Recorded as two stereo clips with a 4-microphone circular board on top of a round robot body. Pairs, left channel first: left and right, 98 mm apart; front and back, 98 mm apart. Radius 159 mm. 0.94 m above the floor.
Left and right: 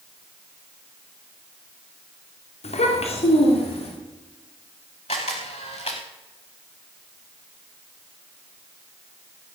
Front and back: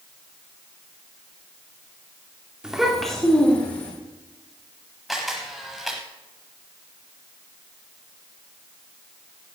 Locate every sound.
2.6 s a child speaking: 95° left, 2.5 m; by 3.9 s 70° left, 3.5 m
5.1 s a camera shutter: 95° left, 0.8 m